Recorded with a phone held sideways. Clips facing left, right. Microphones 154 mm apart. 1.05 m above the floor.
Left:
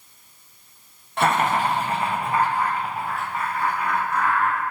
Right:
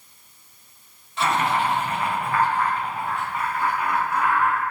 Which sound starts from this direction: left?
Laughter, at 1.2 s.